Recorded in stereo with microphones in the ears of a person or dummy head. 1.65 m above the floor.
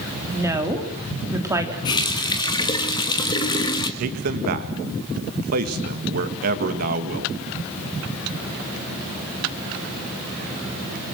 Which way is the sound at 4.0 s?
55° right (ahead or behind).